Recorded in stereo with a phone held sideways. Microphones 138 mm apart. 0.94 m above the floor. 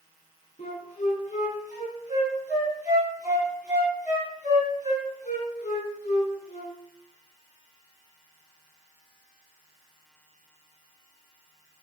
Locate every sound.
0.6 s a flute: 60° left (ahead or behind), 3.5 m